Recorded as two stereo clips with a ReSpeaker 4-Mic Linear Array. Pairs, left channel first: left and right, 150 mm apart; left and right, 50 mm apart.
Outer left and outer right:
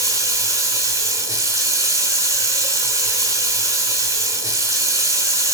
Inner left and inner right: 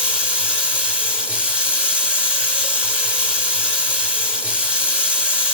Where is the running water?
20° right (ahead or behind), 1.5 m.